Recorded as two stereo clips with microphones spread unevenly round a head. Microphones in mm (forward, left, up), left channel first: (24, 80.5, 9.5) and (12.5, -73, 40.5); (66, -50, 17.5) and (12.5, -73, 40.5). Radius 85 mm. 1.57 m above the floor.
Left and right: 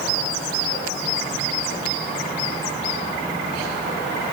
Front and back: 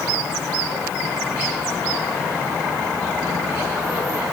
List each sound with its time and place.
Only background noise.